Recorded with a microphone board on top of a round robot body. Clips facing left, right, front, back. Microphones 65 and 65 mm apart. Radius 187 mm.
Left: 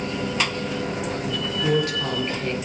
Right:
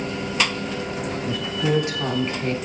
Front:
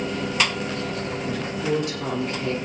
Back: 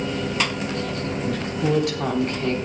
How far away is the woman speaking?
About 4 m.